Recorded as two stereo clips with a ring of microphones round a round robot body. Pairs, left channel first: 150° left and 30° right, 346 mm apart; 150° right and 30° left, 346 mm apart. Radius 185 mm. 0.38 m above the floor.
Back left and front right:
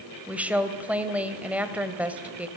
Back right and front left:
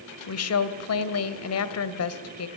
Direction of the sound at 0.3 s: 115° right.